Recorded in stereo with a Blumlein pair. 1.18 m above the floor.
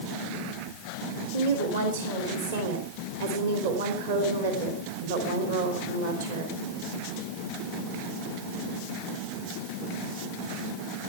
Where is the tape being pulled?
I don't hear tape being pulled.